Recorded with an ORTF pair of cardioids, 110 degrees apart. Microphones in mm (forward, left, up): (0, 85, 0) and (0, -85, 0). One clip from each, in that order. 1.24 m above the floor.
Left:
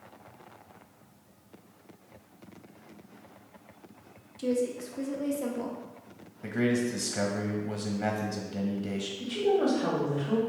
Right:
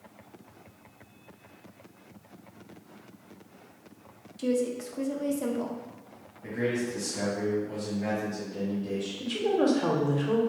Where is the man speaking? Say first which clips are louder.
Left 1 dB; 55° left, 1.0 m.